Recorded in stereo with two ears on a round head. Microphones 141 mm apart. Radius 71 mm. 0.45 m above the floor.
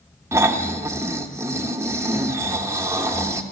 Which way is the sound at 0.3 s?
20° right (ahead or behind).